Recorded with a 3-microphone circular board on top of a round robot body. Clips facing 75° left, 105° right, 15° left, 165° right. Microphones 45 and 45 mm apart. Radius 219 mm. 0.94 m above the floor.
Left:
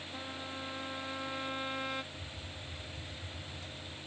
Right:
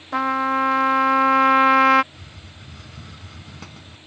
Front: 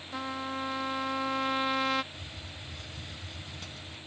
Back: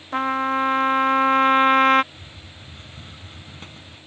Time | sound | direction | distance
0.1 | a trumpet | 115° right | ?
2.1 | a hiss | 100° right | ?